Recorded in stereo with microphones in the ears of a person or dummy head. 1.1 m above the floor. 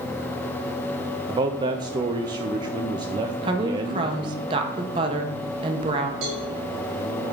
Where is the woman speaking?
25° right (ahead or behind), 0.8 m.